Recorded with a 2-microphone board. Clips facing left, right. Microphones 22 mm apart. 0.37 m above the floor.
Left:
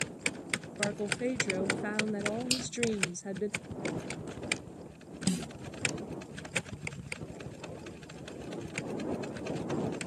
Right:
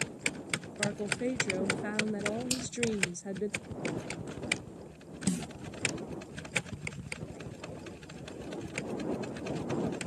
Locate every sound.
0.8 s a woman speaking: 20° left (ahead or behind)
2.5 s a finger snap: 35° left (ahead or behind)
5.3 s a snare drum: 70° left (ahead or behind)